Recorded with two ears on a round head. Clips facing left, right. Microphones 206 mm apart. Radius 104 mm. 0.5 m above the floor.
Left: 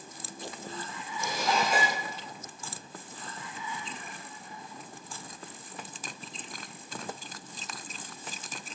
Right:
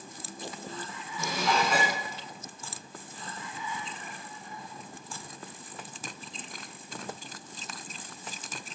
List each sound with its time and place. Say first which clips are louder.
1.2 s dishes clattering: right 1 dB; 55° right (ahead or behind), 3.5 m